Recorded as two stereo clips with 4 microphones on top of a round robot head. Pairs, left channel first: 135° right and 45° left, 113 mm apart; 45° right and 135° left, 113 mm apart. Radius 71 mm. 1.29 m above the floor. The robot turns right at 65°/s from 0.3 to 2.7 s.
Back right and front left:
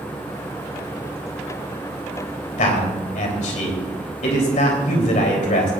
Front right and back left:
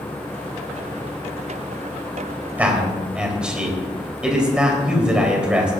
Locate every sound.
2.6 s a man speaking: 150° right, 3 m; by 5.7 s 145° right, 3 m